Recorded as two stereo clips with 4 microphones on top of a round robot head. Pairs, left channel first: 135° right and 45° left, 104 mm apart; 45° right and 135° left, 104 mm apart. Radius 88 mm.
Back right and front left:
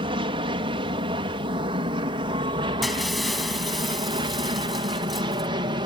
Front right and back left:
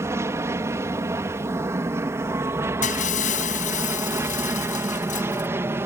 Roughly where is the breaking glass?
Ahead right.